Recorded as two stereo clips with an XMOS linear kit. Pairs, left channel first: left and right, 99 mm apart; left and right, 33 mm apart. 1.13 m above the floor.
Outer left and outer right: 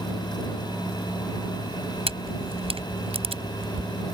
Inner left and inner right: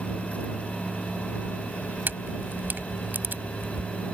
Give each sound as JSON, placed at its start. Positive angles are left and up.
{"t": 2.1, "sound": "a camera shutter", "side_deg": -75}